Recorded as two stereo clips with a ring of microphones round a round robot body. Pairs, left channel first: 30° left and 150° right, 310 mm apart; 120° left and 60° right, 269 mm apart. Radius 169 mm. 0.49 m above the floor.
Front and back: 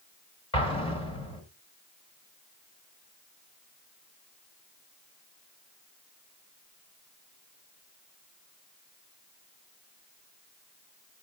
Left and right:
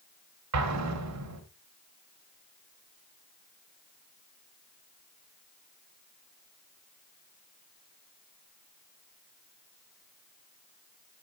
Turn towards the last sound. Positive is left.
turn(degrees=-45)